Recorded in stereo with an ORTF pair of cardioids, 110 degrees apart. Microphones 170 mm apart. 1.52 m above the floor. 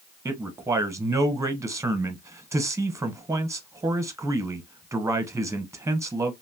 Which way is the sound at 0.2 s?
15° right.